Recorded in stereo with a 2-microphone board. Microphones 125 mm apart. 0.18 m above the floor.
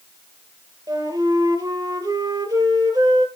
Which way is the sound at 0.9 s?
35° right (ahead or behind).